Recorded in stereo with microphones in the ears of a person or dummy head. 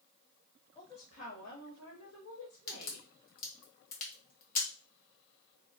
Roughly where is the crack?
Left.